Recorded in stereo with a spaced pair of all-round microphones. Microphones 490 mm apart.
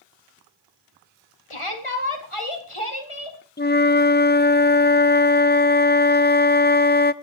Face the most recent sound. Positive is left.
turn(degrees=20)  # may be behind; listen again after turning